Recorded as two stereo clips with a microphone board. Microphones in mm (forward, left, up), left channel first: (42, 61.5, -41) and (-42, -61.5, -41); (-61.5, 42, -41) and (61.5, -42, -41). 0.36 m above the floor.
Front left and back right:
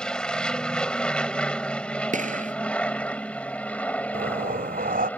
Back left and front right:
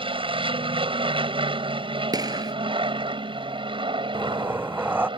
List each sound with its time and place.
0.0 s an aircraft: 25° right; by 5.2 s 15° right
2.1 s a gunshot: 95° right
4.1 s breathing: 110° right